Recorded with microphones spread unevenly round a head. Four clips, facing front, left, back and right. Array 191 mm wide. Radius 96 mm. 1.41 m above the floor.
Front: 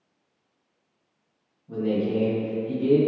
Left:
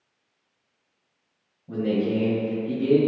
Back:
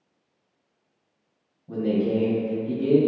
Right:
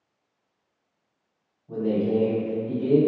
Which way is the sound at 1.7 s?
110° left.